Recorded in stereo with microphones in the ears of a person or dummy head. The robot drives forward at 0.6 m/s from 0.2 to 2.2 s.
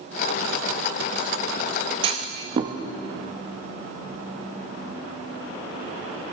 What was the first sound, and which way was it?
A clunk, 30° right (ahead or behind).